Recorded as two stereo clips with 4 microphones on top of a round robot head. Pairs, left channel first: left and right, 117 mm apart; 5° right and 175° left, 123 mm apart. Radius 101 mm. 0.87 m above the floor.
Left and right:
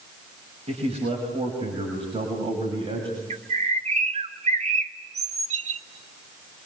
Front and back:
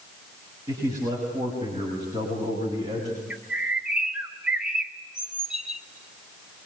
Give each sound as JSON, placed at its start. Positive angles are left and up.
{"t": 0.7, "sound": "a man speaking", "azimuth_deg": -125, "distance_m": 6.5}
{"t": 3.3, "sound": "a bird", "azimuth_deg": -105, "distance_m": 1.5}